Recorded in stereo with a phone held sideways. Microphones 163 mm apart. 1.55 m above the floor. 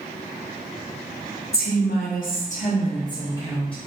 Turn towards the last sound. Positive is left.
turn(degrees=5)  # may be behind; listen again after turning